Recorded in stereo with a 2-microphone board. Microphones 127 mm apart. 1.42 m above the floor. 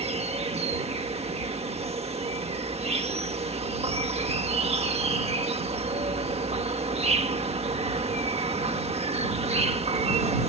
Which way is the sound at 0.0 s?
55° right (ahead or behind).